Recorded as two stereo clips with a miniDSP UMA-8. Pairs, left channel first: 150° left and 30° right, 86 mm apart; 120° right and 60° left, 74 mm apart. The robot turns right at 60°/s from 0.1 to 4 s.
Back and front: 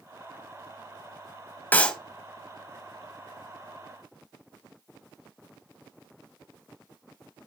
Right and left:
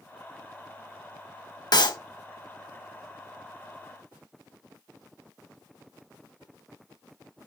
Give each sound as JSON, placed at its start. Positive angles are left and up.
{"t": 1.7, "sound": "a clap", "azimuth_deg": -145, "distance_m": 1.7}